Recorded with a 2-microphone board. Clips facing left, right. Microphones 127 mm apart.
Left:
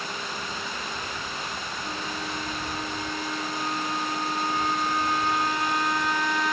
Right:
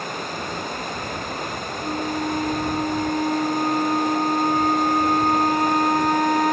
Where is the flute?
45° right (ahead or behind).